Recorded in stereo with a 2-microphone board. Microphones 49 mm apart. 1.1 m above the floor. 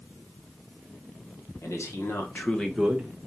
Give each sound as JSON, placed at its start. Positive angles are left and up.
{"t": 1.6, "sound": "a man speaking", "side_deg": 70, "distance_m": 1.1}